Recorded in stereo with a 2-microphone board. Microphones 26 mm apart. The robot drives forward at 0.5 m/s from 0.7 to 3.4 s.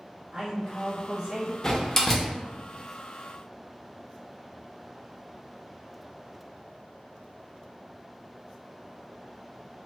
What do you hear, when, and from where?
0.3 s a man speaking: 25° right (ahead or behind), 1.0 m; by 1.5 s 40° right (ahead or behind), 0.6 m
1.6 s a door slam: 20° left (ahead or behind), 0.5 m; by 2.3 s 15° left (ahead or behind), 0.8 m